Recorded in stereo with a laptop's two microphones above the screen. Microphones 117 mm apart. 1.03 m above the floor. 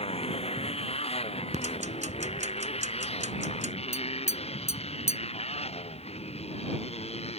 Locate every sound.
0.0 s a motorcycle: 55° left (ahead or behind); by 7.4 s 60° left (ahead or behind)
1.5 s ticking: 80° right
3.9 s tapping: 75° left (ahead or behind)